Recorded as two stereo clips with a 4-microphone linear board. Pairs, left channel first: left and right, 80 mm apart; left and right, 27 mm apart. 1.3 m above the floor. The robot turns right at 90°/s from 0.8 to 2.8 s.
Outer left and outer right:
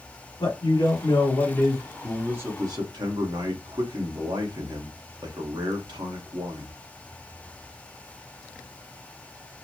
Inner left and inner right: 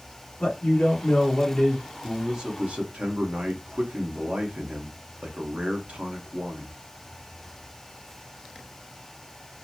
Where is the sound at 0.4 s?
80° left, 1.5 m; by 1.8 s 165° left, 1.5 m.